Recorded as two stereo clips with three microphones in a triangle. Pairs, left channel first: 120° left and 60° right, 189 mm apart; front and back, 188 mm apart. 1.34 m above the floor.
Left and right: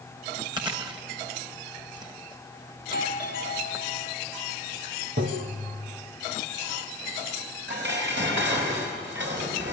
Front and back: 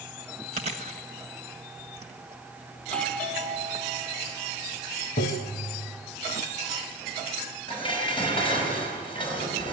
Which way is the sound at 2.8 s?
85° left.